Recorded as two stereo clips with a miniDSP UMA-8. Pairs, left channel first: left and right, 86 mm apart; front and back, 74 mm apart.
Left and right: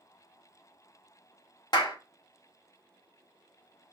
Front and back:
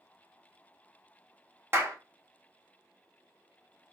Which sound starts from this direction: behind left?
A clap, at 1.7 s.